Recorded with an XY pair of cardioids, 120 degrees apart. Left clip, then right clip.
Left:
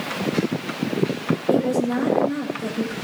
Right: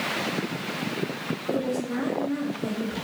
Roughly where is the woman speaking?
Ahead left.